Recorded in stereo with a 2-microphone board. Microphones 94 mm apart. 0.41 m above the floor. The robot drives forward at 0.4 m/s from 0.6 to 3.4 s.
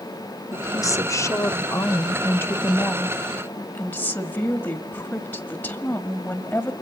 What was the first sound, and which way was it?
A woman speaking, 35° left (ahead or behind).